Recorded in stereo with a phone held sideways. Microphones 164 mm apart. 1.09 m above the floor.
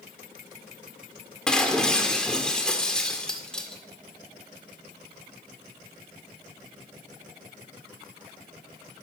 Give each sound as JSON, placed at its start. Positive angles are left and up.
{"t": 1.5, "sound": "breaking glass", "side_deg": 5, "distance_m": 1.6}